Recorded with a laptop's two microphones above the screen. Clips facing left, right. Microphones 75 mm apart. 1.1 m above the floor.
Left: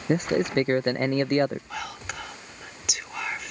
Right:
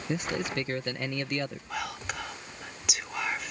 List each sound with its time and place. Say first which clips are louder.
0.1 s a man speaking: left 8 dB; 45° left (ahead or behind)
1.7 s whispering: even; centre (ahead or behind)